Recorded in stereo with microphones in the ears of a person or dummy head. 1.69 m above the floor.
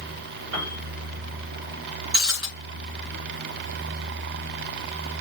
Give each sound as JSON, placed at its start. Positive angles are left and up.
{"t": 0.5, "sound": "a piano", "side_deg": -55, "distance_m": 3.5}
{"t": 2.1, "sound": "breaking glass", "side_deg": -20, "distance_m": 3.0}